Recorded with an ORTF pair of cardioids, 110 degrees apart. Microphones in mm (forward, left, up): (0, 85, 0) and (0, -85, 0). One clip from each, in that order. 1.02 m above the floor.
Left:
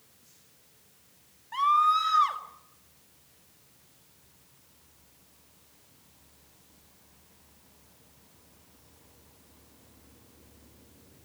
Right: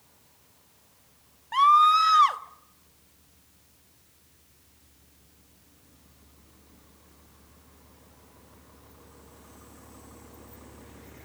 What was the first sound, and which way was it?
A scream, 40° right.